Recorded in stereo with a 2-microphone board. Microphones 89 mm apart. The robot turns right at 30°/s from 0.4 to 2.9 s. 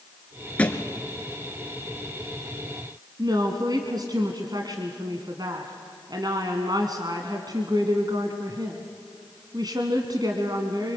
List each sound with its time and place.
0.6 s a thud: 15° left (ahead or behind), 1.3 m; by 0.9 s 25° left (ahead or behind), 1.3 m
3.2 s a woman speaking: 50° right (ahead or behind), 1.7 m